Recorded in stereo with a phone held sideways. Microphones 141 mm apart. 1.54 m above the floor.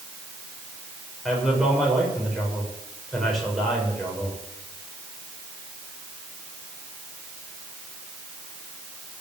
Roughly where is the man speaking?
Centre.